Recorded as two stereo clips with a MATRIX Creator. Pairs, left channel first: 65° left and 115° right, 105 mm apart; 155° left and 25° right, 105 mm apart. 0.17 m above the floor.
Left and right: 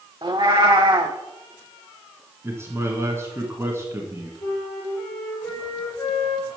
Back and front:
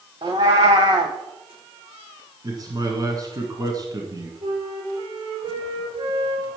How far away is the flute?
About 3.5 m.